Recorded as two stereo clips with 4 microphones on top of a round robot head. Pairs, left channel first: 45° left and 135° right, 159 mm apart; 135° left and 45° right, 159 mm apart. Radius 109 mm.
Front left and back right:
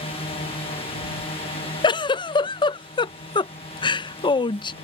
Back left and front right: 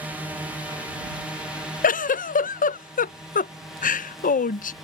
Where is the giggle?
105° left.